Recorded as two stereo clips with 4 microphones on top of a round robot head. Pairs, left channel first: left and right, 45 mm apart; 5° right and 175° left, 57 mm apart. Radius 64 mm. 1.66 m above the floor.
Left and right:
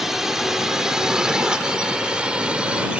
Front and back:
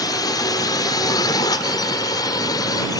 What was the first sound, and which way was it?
A drone, 5° right.